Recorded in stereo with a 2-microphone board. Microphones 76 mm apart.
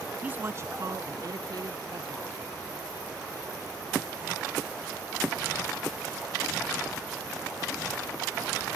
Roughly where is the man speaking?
Centre.